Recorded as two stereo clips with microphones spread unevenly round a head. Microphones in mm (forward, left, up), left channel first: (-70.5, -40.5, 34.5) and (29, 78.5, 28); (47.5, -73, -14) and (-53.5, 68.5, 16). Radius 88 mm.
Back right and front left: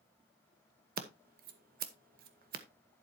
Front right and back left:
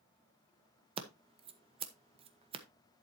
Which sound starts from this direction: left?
Scissors, at 1.0 s.